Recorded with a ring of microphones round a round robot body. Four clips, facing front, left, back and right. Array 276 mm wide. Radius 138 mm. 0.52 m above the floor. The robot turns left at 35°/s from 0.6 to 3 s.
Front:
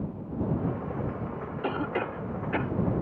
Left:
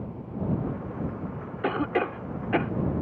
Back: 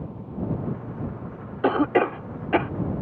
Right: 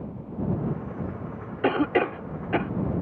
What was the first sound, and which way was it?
A cough, 150° right.